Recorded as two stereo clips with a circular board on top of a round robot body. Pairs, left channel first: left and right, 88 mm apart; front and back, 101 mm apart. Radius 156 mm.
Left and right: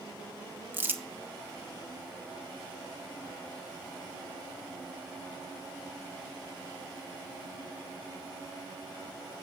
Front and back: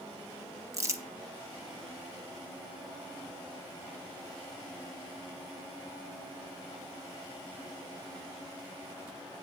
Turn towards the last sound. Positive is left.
turn(degrees=-140)